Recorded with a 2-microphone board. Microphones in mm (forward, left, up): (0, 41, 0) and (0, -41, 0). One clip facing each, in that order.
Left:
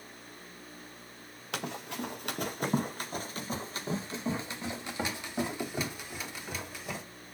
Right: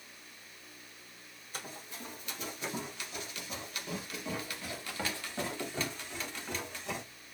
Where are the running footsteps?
70° left (ahead or behind), 1.5 m; by 7.0 s 5° left (ahead or behind), 3 m.